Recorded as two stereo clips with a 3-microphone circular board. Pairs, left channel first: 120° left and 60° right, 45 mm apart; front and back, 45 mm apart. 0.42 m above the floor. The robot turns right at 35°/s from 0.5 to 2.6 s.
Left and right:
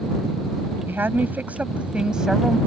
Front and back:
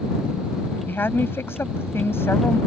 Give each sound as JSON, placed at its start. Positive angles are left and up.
{"t": 0.9, "sound": "a woman speaking", "azimuth_deg": -30}